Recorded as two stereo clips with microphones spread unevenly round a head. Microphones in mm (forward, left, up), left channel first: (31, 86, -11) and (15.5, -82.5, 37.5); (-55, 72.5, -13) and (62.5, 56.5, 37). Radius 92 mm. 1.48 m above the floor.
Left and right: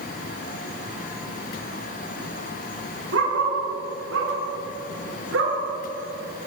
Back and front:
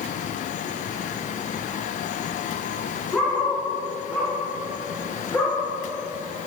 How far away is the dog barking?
About 7 m.